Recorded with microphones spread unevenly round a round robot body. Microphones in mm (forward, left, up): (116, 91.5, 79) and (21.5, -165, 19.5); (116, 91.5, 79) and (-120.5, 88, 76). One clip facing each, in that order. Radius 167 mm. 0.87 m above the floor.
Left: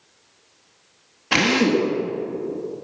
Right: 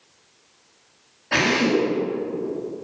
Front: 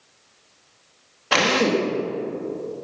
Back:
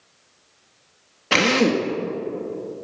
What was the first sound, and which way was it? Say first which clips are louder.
A drill: left 2 dB, back 2 dB; 120° left.